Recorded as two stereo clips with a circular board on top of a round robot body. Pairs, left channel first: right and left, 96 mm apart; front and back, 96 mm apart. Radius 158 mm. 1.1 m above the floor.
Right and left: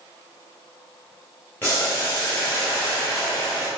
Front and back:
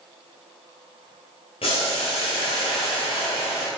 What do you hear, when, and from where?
1.6 s boiling: 20° right, 0.6 m